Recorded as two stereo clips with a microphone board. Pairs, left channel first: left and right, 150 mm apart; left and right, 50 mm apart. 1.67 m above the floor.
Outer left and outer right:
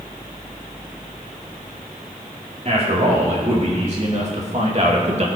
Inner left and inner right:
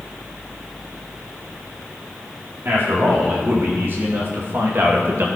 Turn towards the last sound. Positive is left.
turn(degrees=-45)  # may be behind; listen again after turning